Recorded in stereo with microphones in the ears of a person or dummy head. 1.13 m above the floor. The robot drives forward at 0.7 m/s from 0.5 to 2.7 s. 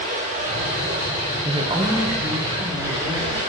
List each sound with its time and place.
0.0 s running water: 40° right (ahead or behind), 2 m; by 3.5 s 25° right (ahead or behind), 3.5 m
1.4 s a woman speaking: 30° right (ahead or behind), 0.6 m; by 3.4 s 10° right (ahead or behind), 1.4 m